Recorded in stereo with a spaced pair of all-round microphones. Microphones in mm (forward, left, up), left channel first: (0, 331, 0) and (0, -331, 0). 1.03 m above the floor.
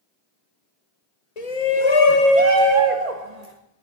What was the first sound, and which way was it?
A shout, 65° left (ahead or behind).